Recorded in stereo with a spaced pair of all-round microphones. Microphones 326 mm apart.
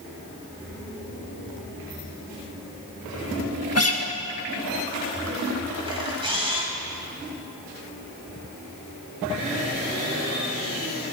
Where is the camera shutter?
15° right (ahead or behind), 3 m.